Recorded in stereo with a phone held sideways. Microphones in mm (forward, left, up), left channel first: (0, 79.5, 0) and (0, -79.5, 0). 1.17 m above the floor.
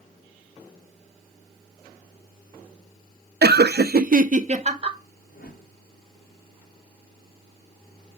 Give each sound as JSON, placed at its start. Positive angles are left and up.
{"t": 3.4, "sound": "laughter", "side_deg": -70, "distance_m": 0.6}
{"t": 5.3, "sound": "a whoosh", "side_deg": 65, "distance_m": 2.5}